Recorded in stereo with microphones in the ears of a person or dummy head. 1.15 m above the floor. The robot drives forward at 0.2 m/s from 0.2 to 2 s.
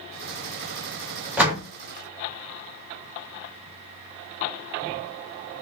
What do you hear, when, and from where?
1.4 s a door slam: 5° right (ahead or behind), 0.6 m